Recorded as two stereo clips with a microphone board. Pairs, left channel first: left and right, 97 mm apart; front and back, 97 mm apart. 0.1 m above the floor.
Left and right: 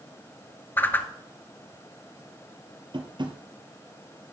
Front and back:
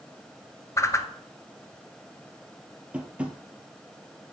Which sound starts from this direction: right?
Tapping, at 2.9 s.